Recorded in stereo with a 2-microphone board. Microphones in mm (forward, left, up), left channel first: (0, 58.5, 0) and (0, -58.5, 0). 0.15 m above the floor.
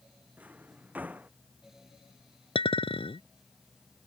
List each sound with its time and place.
0.4 s a drawer: 15° right (ahead or behind)
2.5 s a clink: 55° left (ahead or behind)